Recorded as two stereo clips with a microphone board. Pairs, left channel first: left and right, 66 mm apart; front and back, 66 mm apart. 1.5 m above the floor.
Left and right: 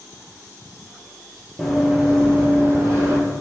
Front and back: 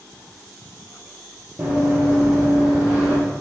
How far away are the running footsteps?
About 1.5 m.